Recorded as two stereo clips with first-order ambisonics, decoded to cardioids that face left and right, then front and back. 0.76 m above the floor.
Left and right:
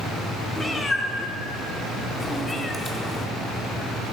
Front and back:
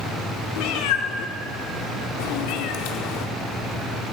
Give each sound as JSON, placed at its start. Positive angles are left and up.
{"t": 0.6, "sound": "a cat meowing", "azimuth_deg": 10, "distance_m": 1.0}